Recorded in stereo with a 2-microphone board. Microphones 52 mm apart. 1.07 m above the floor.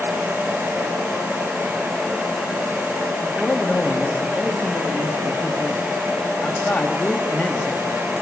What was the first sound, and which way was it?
A man speaking, 25° left (ahead or behind).